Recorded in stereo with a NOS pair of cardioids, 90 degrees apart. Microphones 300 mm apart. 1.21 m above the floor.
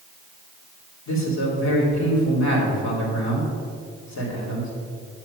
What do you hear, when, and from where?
1.1 s a man speaking: 70° left, 2.5 m